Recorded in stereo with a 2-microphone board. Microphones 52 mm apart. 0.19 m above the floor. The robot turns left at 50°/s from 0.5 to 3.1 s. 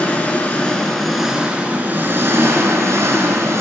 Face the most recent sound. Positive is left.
turn(degrees=-100)